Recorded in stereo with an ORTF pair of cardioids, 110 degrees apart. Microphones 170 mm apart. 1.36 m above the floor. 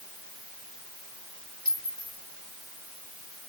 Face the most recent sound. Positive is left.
turn(degrees=-5)